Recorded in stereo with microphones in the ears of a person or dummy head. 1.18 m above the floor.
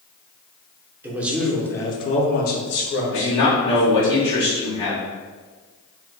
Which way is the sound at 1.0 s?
15° right (ahead or behind).